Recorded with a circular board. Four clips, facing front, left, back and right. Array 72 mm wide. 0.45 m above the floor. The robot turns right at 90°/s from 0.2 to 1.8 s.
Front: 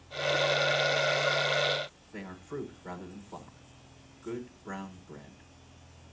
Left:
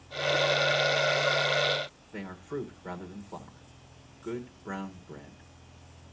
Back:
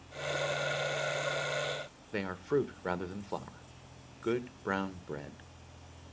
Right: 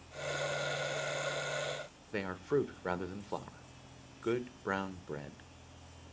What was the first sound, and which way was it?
A man speaking, 150° right.